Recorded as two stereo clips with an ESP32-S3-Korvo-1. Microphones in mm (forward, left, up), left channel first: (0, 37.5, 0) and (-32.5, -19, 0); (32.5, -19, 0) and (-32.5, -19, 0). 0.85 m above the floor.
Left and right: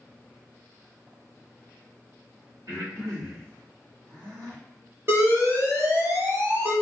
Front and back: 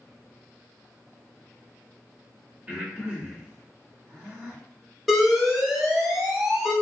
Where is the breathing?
120° right, 1.5 m.